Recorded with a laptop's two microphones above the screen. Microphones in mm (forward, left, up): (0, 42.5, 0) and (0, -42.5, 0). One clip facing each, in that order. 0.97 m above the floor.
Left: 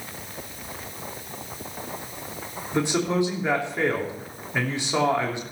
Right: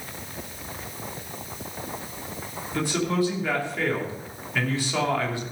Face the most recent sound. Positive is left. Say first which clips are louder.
# left 2 dB
turn(degrees=20)  # may be behind; listen again after turning